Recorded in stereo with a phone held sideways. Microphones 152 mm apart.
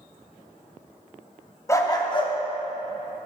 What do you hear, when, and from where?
1.7 s a dog barking: 20° left (ahead or behind), 0.6 m; by 3.3 s 45° left (ahead or behind), 1.3 m